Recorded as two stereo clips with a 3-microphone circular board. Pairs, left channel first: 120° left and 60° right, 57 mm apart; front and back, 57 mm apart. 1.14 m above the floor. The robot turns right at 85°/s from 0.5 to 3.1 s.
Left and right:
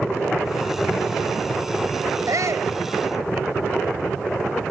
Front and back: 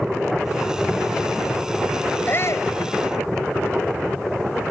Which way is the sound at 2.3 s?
55° right.